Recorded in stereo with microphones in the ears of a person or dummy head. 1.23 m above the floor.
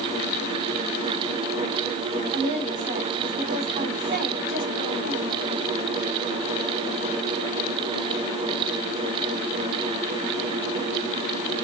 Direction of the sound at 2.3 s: 60° right (ahead or behind).